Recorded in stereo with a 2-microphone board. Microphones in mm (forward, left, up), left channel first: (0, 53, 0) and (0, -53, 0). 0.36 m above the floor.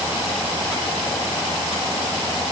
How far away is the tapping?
I don't hear tapping.